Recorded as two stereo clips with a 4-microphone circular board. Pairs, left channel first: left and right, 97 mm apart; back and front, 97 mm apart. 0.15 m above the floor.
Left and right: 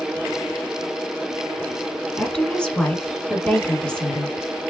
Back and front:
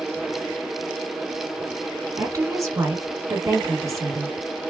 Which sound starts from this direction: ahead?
A woman speaking, at 2.2 s.